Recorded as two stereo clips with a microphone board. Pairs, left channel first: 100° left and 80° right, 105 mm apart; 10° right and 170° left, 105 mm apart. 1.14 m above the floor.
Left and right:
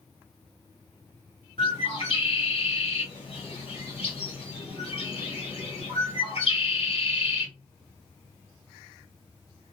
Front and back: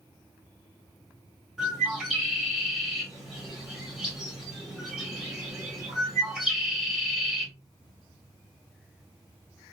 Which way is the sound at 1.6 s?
85° left.